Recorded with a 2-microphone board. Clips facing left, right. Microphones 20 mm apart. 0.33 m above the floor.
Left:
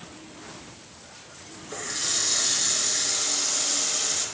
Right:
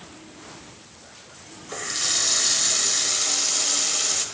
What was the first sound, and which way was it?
A running tap, 30° right (ahead or behind).